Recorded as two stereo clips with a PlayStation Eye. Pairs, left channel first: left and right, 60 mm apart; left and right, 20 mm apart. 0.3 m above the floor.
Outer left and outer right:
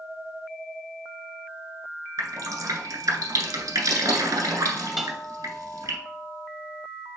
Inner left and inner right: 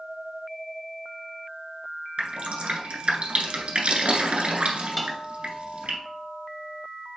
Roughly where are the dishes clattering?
Centre.